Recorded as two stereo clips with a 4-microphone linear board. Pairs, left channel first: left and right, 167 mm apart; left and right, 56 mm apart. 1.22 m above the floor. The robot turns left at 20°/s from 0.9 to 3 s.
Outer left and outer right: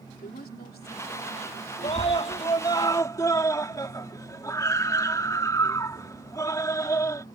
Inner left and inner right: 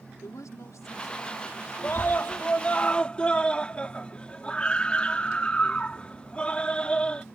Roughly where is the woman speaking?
Left.